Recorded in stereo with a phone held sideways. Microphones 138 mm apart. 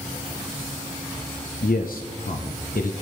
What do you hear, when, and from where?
1.6 s a man speaking: 90° left, 0.8 m